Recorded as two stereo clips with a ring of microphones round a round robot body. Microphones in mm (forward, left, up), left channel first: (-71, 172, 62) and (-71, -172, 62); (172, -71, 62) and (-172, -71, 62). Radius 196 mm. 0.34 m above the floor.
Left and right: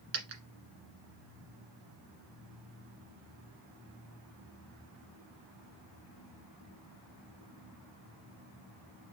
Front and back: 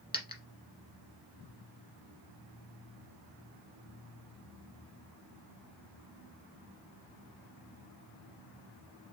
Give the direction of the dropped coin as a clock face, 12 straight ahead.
3 o'clock.